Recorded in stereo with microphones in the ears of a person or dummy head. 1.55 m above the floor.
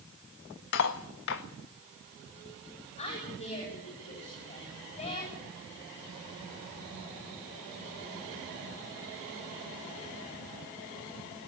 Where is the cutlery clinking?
60° left (ahead or behind), 1.5 m.